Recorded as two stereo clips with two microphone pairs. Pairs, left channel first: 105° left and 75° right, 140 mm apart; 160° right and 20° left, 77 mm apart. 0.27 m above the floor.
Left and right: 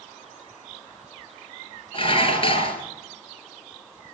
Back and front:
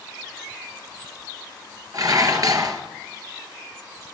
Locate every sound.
1.9 s dishes clattering: 55° left, 3 m